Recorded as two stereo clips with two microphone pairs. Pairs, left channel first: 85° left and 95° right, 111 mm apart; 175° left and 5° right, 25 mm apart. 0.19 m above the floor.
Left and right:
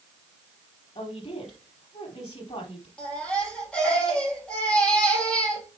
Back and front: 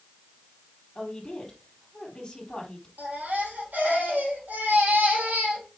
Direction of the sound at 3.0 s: 5° left.